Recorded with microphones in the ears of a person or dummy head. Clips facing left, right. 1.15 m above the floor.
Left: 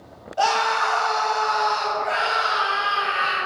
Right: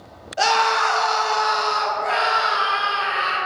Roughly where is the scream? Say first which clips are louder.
Right 2 dB; centre.